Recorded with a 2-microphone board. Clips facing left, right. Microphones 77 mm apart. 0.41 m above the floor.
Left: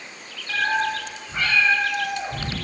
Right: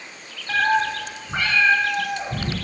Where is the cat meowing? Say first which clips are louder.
Right 3 dB; 45° right (ahead or behind), 1.0 m; by 2.5 s 70° right (ahead or behind), 2.5 m.